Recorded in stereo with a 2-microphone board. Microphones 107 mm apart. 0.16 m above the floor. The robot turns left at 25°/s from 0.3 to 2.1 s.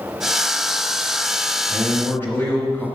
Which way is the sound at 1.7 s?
15° left (ahead or behind).